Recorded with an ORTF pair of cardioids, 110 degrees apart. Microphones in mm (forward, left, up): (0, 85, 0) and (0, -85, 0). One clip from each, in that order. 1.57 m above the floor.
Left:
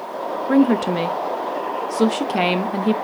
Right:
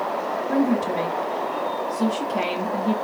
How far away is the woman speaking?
About 0.6 m.